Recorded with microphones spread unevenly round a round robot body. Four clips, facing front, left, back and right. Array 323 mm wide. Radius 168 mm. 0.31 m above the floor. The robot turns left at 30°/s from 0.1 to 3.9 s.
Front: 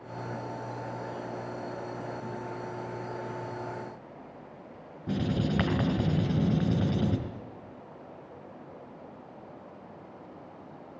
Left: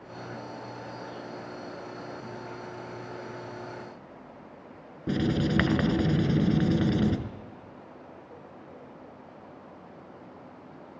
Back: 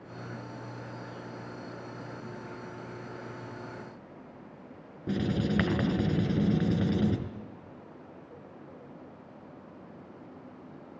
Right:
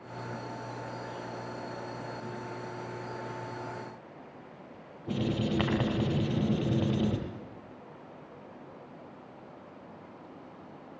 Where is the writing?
95° left, 5.5 m.